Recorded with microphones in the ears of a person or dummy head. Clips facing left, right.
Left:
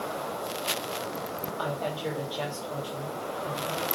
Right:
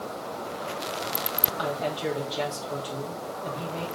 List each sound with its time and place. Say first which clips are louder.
1.6 s a woman speaking: right 3 dB; 30° right (ahead or behind), 3 m